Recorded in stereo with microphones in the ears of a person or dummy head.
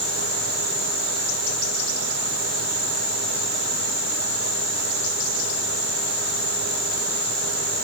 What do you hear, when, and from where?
Only background noise.